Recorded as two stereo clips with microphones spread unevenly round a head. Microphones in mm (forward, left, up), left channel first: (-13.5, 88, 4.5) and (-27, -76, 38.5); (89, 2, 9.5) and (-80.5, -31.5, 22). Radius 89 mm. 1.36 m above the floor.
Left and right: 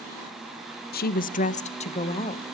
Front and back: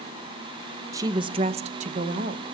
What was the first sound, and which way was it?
A woman speaking, 115° left.